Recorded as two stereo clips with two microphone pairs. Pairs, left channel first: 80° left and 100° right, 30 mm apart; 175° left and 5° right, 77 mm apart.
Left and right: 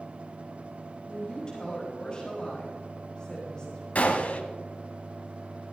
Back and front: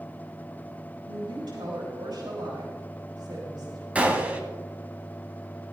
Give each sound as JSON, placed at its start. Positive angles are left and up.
{"t": 1.1, "sound": "a woman speaking", "azimuth_deg": 10, "distance_m": 4.5}
{"t": 4.0, "sound": "a gunshot", "azimuth_deg": 60, "distance_m": 1.6}